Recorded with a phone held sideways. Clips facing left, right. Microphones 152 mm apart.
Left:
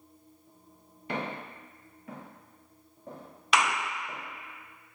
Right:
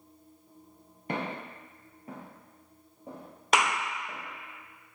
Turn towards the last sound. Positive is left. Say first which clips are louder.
# right 1 dB
turn(degrees=-45)  # may be behind; listen again after turning